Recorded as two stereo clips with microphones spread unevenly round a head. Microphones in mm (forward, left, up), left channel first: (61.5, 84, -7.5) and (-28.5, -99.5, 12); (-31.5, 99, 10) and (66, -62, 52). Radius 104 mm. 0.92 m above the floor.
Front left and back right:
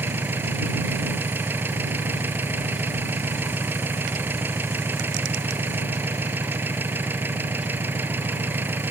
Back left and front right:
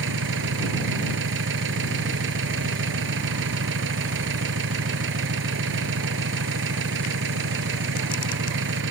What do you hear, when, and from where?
0.0 s an engine running: 35° right